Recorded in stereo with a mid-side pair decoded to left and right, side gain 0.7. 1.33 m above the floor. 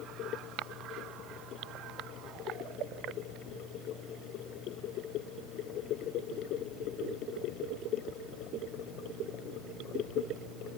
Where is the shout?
I don't hear a shout.